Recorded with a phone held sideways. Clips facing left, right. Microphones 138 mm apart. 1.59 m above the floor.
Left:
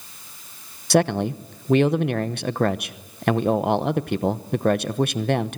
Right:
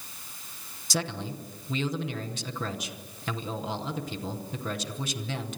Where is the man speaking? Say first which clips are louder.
Left 13 dB; 65° left (ahead or behind), 0.9 m.